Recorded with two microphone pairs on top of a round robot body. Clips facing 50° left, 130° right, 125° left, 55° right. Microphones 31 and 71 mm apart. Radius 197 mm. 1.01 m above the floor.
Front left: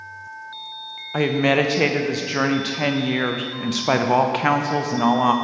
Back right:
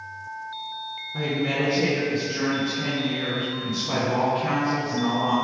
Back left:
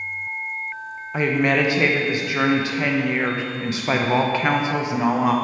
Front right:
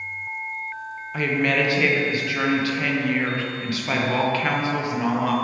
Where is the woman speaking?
60° left, 0.7 m.